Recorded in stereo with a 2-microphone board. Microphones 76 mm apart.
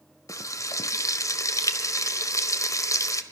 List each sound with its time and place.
0.3 s frying: 45° left (ahead or behind), 1.5 m